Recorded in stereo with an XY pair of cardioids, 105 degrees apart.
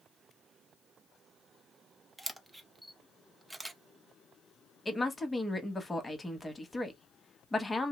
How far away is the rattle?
No rattle in this recording.